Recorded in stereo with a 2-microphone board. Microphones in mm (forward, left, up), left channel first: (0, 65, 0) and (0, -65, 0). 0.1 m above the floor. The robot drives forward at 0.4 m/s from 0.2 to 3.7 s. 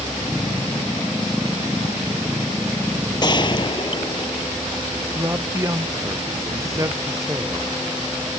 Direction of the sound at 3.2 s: 35° left (ahead or behind).